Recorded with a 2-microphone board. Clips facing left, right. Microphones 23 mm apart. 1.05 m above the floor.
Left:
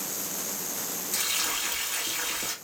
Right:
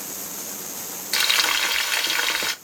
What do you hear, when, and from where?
1.1 s frying: 70° right (ahead or behind), 1.0 m